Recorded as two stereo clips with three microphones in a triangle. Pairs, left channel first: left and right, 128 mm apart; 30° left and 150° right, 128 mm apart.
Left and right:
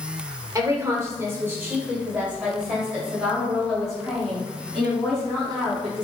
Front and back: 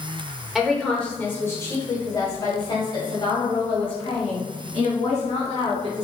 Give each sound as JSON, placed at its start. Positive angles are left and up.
{"t": 0.6, "sound": "a woman speaking", "azimuth_deg": -65, "distance_m": 1.2}